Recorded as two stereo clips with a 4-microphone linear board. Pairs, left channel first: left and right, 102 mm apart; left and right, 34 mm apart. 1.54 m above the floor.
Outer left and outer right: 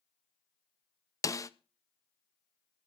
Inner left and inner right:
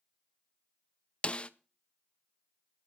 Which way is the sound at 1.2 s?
30° left (ahead or behind).